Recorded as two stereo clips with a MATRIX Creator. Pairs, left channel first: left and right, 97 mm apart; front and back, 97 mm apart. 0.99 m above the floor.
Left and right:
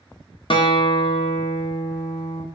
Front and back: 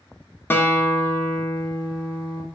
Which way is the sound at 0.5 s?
65° left.